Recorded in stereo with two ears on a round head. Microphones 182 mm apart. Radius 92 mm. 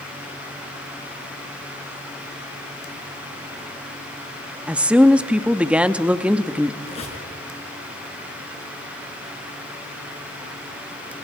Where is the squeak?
30° left (ahead or behind), 4.5 m.